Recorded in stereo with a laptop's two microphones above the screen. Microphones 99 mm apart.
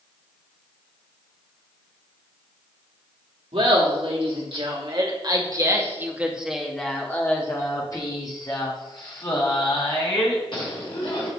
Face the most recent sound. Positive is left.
turn(degrees=55)  # may be behind; listen again after turning